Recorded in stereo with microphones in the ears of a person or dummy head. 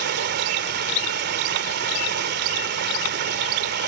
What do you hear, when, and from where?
0.0 s running water: 50° right (ahead or behind)